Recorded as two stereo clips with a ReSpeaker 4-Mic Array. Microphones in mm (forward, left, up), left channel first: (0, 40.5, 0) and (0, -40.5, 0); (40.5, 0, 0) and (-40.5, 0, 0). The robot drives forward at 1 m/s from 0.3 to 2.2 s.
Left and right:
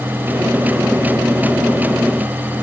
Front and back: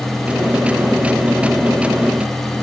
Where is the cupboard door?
No cupboard door in this recording.